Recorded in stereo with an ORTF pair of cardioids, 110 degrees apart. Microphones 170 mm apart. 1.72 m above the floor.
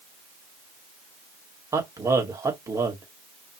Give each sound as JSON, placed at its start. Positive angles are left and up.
{"t": 1.7, "sound": "a man speaking", "azimuth_deg": -20, "distance_m": 2.0}